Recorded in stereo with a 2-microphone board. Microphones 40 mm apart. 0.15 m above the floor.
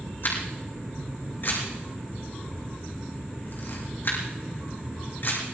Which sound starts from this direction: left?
A camera shutter, at 0.2 s.